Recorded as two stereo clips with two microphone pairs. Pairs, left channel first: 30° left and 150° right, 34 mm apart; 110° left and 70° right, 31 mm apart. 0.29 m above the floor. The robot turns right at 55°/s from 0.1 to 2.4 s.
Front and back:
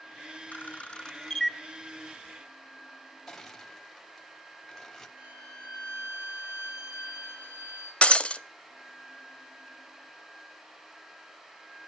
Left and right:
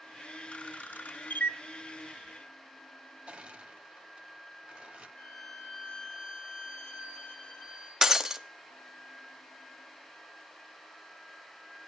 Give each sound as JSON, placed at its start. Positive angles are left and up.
{"t": 0.5, "sound": "a camera shutter", "azimuth_deg": 60, "distance_m": 0.7}
{"t": 3.3, "sound": "crushing", "azimuth_deg": -45, "distance_m": 1.1}
{"t": 5.2, "sound": "a violin", "azimuth_deg": 175, "distance_m": 3.0}
{"t": 8.0, "sound": "breaking glass", "azimuth_deg": -5, "distance_m": 0.5}